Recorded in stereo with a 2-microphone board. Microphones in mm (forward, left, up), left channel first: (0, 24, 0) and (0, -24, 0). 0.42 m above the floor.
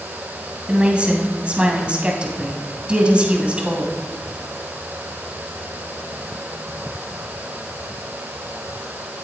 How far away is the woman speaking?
About 2.5 m.